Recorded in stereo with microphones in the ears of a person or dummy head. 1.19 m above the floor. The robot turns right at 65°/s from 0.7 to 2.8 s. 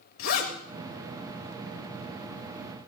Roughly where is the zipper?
Left.